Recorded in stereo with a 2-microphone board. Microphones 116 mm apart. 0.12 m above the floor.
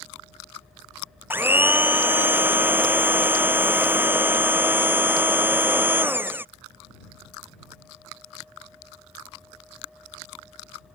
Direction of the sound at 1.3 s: 15° right (ahead or behind).